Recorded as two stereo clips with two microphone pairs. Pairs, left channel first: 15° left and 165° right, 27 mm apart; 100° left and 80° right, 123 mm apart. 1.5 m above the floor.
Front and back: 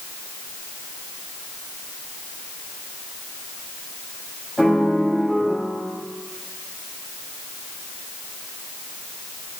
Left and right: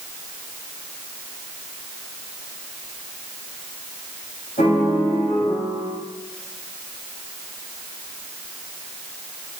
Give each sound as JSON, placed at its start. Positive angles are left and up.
{"t": 4.6, "sound": "a piano", "azimuth_deg": 100, "distance_m": 7.0}